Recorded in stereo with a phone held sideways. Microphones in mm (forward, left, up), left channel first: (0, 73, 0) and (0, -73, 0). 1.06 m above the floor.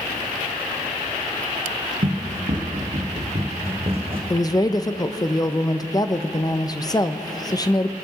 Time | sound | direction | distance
2.0 | running footsteps | 60° right (ahead or behind) | 2 m
4.3 | a woman speaking | 25° left (ahead or behind) | 0.6 m